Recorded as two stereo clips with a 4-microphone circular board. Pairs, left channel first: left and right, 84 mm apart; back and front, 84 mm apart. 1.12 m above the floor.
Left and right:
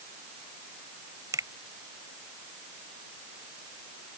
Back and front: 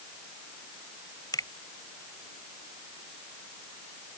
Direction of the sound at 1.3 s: 140° right.